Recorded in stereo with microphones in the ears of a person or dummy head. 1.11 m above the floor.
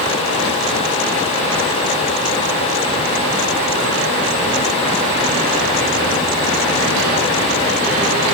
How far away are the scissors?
No scissors in this recording.